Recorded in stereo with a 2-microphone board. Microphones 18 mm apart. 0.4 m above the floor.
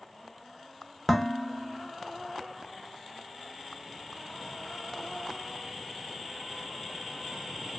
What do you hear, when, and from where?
1.1 s dishes clattering: 5° left (ahead or behind), 0.7 m